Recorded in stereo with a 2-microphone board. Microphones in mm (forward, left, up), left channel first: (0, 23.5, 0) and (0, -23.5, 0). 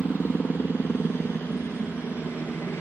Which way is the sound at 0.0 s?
60° left (ahead or behind).